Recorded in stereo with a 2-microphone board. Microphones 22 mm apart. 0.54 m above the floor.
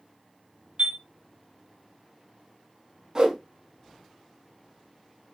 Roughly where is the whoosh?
Right.